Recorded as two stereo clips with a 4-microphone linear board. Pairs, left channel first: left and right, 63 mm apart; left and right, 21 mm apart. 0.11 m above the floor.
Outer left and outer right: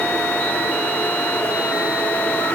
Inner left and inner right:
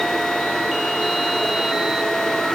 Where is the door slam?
I don't hear a door slam.